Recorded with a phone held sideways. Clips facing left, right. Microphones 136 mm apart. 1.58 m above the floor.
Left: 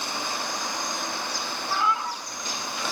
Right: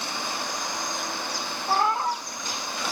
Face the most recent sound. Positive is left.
turn(degrees=-50)  # may be behind; listen again after turning